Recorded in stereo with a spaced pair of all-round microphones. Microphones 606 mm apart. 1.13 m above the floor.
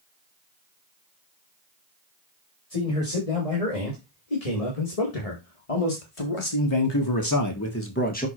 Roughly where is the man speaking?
Left.